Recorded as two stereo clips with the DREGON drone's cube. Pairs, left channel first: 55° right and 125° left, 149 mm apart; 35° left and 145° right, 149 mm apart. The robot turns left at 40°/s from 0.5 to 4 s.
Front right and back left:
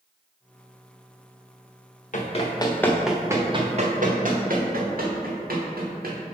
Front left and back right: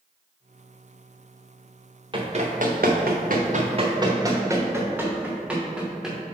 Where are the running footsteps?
90° right, 1.3 m; by 6.2 s 125° left, 2 m.